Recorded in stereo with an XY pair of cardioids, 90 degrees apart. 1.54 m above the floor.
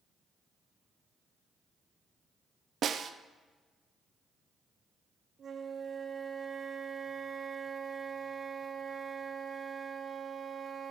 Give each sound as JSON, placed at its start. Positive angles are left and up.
{"t": 2.8, "sound": "a snare drum", "azimuth_deg": -60, "distance_m": 0.6}
{"t": 5.4, "sound": "a flute", "azimuth_deg": -50, "distance_m": 1.1}